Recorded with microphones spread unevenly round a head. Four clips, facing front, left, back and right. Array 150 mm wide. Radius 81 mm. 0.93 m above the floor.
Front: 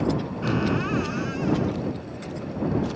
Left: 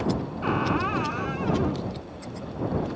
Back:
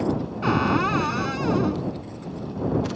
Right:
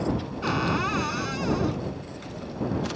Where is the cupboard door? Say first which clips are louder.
Left 1 dB, back 4 dB; 165° left.